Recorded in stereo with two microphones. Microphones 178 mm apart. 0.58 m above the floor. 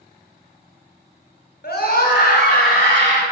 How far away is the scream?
About 3.5 m.